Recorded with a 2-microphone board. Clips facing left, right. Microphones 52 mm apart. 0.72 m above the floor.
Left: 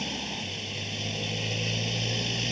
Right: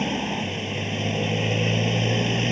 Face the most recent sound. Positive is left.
turn(degrees=-35)  # may be behind; listen again after turning